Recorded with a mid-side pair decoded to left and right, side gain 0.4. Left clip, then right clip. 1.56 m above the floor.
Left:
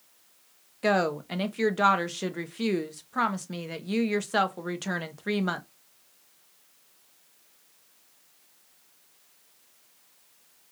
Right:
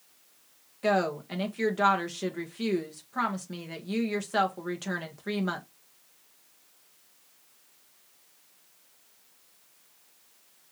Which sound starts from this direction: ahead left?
A woman speaking, at 0.8 s.